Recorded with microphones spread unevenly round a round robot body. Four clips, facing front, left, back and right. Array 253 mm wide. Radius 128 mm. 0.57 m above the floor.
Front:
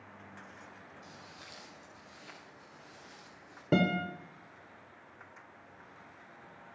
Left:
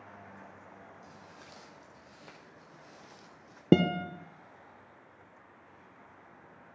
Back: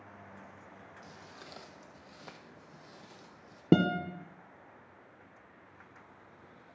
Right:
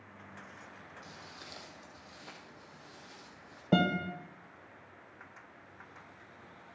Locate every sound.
1.0 s footsteps: 150° right, 1.4 m; by 3.6 s 140° left, 1.3 m
3.7 s a guitar: 120° left, 0.8 m